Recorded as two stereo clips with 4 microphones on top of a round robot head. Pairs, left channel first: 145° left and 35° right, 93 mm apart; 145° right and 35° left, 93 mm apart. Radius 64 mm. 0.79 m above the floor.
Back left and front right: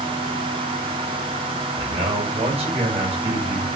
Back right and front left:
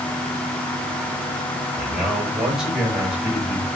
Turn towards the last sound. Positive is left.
turn(degrees=-50)